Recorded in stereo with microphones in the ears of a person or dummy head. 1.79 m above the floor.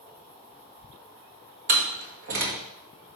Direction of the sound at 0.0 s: 15° right (ahead or behind).